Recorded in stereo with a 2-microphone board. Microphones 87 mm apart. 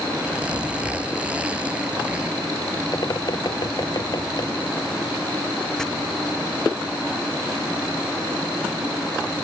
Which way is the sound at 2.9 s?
50° left (ahead or behind).